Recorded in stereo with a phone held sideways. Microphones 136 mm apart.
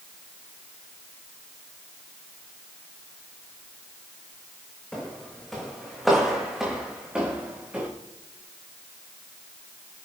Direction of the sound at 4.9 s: 5° left (ahead or behind).